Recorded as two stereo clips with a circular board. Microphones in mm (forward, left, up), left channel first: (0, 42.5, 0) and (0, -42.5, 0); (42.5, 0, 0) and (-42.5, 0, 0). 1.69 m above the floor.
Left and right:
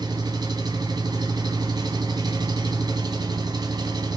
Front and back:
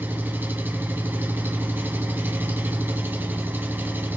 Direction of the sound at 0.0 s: 120° right.